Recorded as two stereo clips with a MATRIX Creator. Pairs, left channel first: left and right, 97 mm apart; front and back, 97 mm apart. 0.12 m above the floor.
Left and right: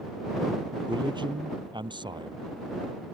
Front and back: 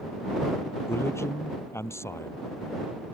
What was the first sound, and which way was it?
A man speaking, 60° right.